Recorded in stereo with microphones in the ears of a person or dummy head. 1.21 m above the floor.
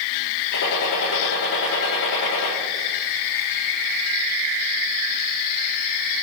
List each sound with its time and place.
0.5 s a gunshot: 60° left (ahead or behind), 3 m